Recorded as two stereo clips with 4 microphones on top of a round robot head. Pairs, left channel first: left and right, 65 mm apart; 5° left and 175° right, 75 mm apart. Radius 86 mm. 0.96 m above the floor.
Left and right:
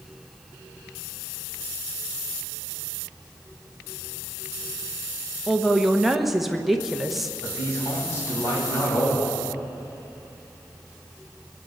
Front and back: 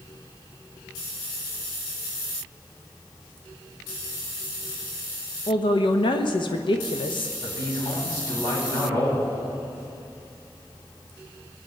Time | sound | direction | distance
5.5 | a man speaking | 5° right | 1.0 m
7.4 | a man speaking | 35° left | 7.5 m